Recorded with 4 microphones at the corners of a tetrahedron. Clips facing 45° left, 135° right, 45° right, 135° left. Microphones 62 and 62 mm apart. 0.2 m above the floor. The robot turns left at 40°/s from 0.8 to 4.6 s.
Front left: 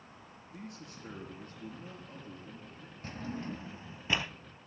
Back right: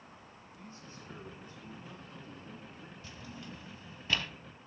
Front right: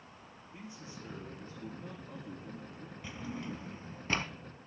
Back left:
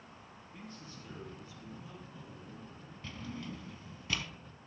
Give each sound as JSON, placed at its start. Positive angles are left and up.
{"t": 0.5, "sound": "a man speaking", "azimuth_deg": 25, "distance_m": 4.0}
{"t": 3.0, "sound": "a drawer", "azimuth_deg": 25, "distance_m": 0.5}